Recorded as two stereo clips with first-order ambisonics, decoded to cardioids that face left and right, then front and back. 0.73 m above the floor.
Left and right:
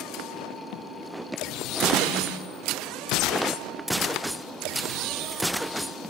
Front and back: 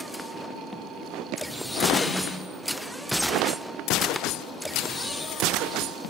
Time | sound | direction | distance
1.9 | a snare drum | 85° right | 4 m